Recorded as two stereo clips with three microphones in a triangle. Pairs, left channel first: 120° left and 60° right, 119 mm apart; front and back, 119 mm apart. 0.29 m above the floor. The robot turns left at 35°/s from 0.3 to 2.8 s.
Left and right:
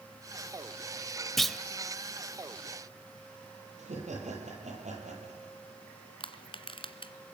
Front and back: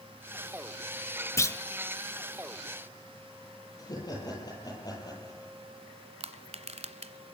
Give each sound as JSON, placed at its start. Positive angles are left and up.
{"t": 1.4, "sound": "a clunk", "azimuth_deg": 35, "distance_m": 1.0}
{"t": 3.8, "sound": "laughter", "azimuth_deg": -55, "distance_m": 10.0}
{"t": 6.2, "sound": "crushing", "azimuth_deg": 160, "distance_m": 1.5}